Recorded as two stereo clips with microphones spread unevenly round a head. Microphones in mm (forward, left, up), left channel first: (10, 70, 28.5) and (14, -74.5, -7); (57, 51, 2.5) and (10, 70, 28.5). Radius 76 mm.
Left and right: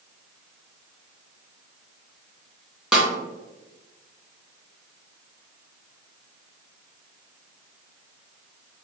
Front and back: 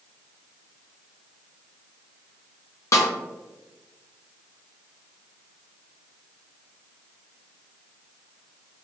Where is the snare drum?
Straight ahead, 1.1 m.